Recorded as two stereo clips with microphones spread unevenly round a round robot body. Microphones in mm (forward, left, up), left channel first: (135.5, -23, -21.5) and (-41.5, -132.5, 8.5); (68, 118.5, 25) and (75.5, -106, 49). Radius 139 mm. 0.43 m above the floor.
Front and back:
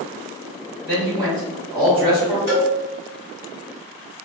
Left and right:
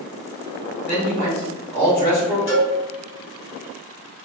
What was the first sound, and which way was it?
A man speaking, 160° left.